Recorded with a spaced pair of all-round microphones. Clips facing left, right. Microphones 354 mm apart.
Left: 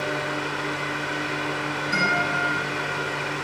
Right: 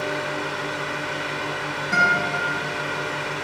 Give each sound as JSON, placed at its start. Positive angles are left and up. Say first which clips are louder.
{"t": 0.0, "sound": "a fan", "louder": "right 1 dB", "side_deg": 25, "distance_m": 1.7}
{"t": 1.9, "sound": "a guitar", "louder": "right 2 dB", "side_deg": -75, "distance_m": 1.2}